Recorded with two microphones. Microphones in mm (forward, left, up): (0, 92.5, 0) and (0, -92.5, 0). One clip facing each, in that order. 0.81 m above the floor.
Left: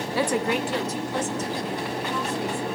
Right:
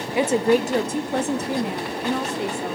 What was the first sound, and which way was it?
A woman speaking, 15° right (ahead or behind).